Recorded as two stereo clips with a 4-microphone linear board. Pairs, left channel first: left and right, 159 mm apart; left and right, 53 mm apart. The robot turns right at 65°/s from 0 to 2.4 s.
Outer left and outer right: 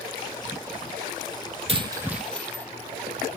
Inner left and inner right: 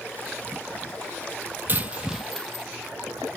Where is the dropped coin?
40° right (ahead or behind), 1.0 m; by 2.7 s 10° left (ahead or behind), 1.0 m.